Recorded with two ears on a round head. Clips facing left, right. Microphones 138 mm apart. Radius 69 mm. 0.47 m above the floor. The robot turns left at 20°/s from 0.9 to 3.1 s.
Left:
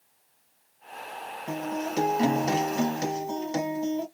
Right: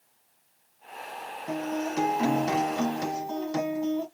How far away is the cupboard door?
No cupboard door in this recording.